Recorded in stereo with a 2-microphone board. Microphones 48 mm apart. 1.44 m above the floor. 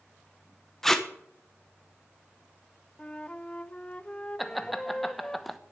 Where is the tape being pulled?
10° left (ahead or behind), 1.0 m.